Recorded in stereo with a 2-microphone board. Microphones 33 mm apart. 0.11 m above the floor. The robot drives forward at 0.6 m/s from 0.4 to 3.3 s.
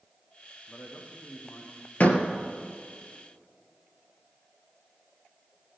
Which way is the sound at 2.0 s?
50° left (ahead or behind).